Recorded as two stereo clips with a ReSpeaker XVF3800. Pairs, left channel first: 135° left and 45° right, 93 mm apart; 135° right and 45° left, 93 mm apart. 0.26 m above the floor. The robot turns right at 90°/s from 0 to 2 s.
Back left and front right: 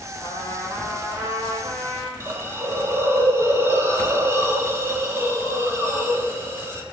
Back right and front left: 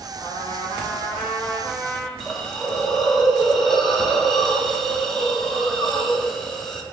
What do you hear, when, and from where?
0.2 s a trumpet: 170° left, 3.5 m; by 2.1 s 30° right, 3.5 m
2.2 s a hiss: 50° right, 1.6 m